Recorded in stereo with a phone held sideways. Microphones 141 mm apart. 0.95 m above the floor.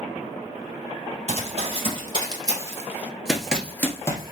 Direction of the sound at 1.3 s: 50° right (ahead or behind).